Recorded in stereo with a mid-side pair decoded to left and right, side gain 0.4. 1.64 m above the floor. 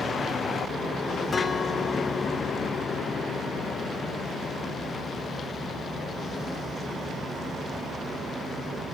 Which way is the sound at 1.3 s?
45° left.